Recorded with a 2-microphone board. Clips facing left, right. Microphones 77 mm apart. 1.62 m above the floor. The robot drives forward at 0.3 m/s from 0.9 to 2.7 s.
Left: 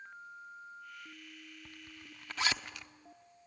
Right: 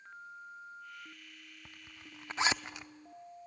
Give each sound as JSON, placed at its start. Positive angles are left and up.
{"t": 1.6, "sound": "a zipper", "side_deg": -15, "distance_m": 0.5}